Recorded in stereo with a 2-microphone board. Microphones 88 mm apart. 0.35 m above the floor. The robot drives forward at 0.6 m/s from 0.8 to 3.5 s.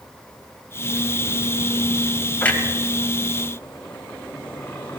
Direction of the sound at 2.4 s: 15° left (ahead or behind).